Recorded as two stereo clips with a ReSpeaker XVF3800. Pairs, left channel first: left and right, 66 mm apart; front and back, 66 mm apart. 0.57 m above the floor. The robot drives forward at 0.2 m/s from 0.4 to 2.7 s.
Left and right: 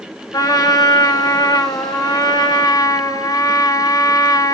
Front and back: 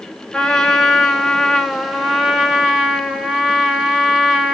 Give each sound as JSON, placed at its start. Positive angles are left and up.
{"t": 0.3, "sound": "a trumpet", "azimuth_deg": 80, "distance_m": 1.3}